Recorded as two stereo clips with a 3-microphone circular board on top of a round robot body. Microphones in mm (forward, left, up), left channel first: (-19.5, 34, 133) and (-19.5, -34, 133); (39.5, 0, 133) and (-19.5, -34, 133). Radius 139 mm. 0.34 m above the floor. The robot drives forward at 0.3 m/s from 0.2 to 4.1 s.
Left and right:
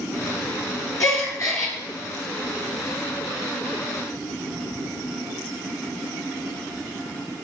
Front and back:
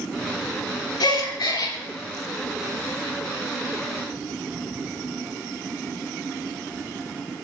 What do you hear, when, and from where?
1.0 s a gasp: 40° left, 2.5 m; by 1.8 s 45° left, 2.5 m